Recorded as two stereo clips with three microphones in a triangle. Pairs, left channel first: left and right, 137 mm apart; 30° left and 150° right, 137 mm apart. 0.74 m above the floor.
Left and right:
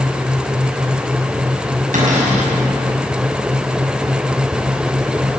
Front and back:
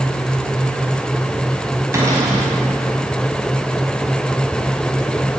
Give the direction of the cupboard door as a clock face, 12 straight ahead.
3 o'clock.